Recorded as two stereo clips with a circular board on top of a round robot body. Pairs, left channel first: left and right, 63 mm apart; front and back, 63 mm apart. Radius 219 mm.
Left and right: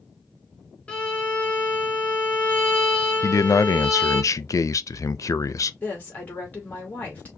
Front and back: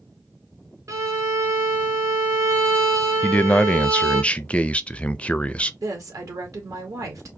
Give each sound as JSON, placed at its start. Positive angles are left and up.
{"t": 0.9, "sound": "a violin", "azimuth_deg": 160, "distance_m": 1.4}
{"t": 3.2, "sound": "a man speaking", "azimuth_deg": 70, "distance_m": 0.7}
{"t": 5.8, "sound": "a woman speaking", "azimuth_deg": 155, "distance_m": 2.0}